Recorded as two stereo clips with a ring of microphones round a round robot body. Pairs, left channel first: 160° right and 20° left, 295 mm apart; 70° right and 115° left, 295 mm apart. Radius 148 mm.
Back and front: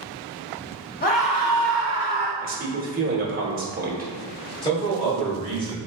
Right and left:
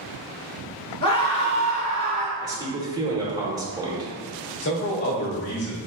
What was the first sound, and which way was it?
A scream, 125° right.